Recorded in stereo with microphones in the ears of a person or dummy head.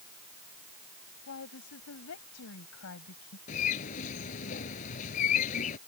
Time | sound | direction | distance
1.3 | a woman speaking | 80° left | ?
3.5 | a bird | 45° left (ahead or behind) | ?